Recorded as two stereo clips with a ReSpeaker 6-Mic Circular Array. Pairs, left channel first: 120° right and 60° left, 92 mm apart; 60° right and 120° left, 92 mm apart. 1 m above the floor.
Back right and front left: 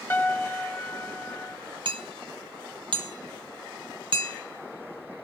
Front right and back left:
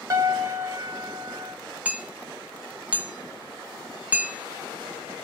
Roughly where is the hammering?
Ahead left.